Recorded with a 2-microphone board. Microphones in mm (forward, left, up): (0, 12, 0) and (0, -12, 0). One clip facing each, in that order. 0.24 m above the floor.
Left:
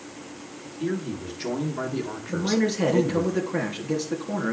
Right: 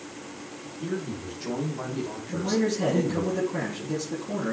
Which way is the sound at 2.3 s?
35° left (ahead or behind).